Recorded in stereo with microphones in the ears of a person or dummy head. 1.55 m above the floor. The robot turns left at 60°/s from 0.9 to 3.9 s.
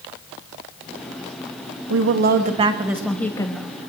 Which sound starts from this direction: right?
A woman speaking, at 1.9 s.